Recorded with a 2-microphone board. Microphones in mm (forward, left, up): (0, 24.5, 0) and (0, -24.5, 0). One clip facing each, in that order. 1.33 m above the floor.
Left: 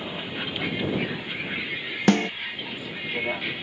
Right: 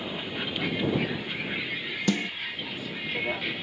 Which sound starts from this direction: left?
A snare drum, at 2.1 s.